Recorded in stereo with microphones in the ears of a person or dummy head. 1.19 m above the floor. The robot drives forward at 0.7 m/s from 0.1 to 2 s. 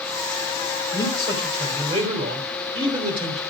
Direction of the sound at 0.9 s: 30° right (ahead or behind).